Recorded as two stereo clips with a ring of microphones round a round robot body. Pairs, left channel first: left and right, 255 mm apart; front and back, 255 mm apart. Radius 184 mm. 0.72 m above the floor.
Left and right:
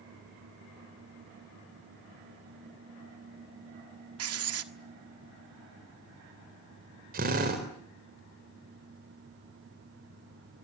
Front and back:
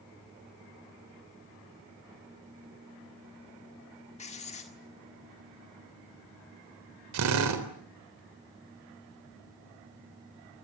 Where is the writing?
70° right, 1.5 m.